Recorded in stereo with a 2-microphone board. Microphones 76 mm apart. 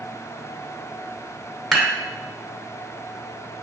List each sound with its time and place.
1.7 s dishes clattering: 5° left (ahead or behind), 1.2 m